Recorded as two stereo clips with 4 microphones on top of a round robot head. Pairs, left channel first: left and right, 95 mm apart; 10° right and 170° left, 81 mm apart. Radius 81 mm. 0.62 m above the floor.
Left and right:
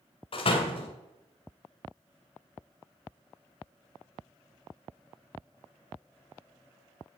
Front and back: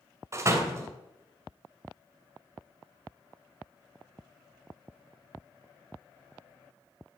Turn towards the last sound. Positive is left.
turn(degrees=115)